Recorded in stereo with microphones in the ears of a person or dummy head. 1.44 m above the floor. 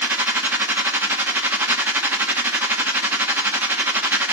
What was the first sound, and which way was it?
A machine running, 10° right (ahead or behind).